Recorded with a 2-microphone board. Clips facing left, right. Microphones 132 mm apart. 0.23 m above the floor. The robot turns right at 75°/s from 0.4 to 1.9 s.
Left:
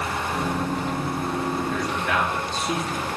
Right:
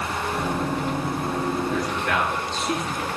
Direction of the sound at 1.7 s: 10° right (ahead or behind).